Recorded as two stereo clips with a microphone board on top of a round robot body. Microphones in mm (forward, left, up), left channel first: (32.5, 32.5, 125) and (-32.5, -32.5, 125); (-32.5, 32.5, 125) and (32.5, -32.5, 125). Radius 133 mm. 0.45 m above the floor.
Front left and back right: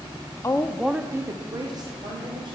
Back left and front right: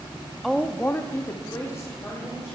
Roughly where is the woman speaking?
Ahead left.